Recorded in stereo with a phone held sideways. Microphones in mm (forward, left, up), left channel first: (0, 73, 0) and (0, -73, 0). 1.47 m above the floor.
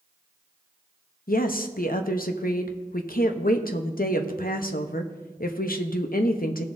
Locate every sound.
1.3 s a woman speaking: 80° left, 0.8 m